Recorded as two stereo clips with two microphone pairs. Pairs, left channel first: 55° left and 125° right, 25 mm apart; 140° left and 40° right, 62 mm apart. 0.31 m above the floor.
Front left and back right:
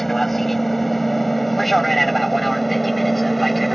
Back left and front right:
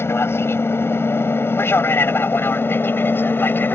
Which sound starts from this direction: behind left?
An aircraft, at 0.0 s.